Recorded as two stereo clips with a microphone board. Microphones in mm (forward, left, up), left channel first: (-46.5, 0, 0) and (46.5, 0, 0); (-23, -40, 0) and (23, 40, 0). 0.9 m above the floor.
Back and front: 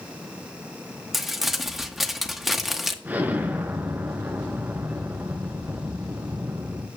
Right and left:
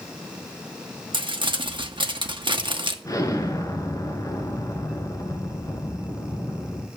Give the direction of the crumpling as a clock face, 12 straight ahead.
9 o'clock.